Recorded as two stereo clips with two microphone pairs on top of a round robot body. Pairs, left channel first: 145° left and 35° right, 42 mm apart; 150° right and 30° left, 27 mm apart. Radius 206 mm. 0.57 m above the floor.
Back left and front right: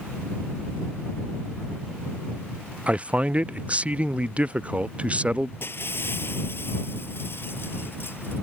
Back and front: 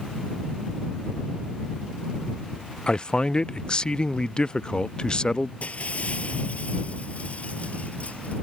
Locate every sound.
2.9 s a man speaking: 95° right
5.6 s breaking glass: 175° left